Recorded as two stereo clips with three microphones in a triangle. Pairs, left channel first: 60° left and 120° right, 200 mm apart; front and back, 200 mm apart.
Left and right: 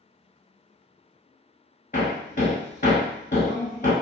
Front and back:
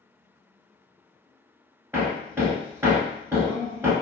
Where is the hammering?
100° left, 0.8 m.